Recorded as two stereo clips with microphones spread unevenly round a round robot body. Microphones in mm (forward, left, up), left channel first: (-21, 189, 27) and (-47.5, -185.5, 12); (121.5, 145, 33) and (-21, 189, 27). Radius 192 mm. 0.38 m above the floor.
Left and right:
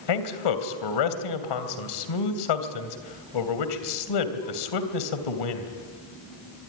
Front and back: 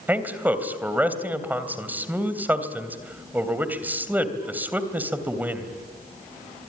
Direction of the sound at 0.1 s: 85° left.